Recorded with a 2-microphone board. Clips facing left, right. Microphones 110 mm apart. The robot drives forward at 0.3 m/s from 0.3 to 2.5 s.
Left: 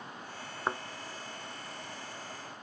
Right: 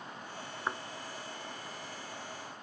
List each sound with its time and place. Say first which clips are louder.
0.7 s a thud: left 3 dB; 25° left (ahead or behind)